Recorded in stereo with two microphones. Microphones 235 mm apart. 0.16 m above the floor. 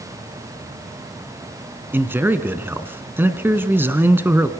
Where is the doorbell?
No doorbell in this recording.